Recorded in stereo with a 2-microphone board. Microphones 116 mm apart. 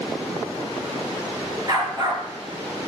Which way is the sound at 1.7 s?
35° right (ahead or behind).